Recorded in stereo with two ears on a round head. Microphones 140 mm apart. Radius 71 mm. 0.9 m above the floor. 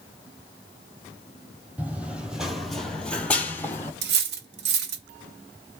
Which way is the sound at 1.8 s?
10° right (ahead or behind).